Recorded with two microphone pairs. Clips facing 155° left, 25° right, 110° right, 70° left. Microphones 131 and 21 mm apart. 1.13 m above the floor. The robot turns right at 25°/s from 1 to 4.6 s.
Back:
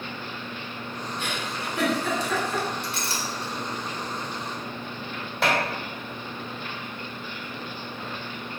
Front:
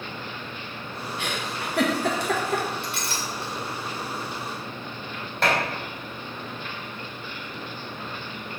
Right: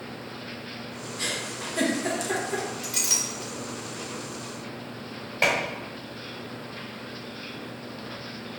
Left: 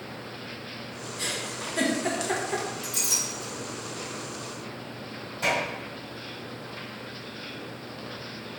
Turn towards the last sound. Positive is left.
turn(degrees=-125)